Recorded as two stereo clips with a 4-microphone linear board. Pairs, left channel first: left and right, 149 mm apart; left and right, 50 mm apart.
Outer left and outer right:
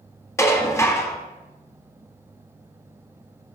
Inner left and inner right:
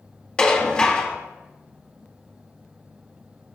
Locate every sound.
0.4 s dishes clattering: 20° left (ahead or behind), 0.8 m